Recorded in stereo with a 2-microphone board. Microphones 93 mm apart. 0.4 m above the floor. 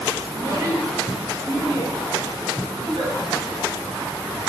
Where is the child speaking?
35° right (ahead or behind), 1.7 m; by 1.9 s 55° right (ahead or behind), 3 m.